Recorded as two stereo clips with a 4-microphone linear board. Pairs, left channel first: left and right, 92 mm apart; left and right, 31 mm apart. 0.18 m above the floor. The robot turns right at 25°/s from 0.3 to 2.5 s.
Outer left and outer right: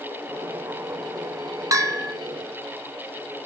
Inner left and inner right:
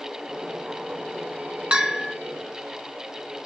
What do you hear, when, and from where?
1.7 s a bell: 35° right (ahead or behind), 1.6 m; by 2.1 s 30° right (ahead or behind), 1.6 m